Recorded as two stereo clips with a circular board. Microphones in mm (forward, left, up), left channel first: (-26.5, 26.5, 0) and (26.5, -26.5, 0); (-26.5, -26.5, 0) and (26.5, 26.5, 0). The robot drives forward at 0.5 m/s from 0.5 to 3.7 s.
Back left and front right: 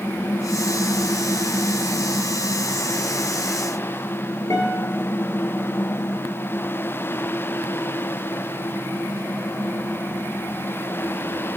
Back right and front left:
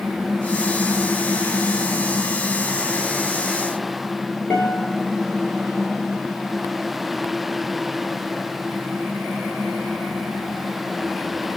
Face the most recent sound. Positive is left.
turn(degrees=175)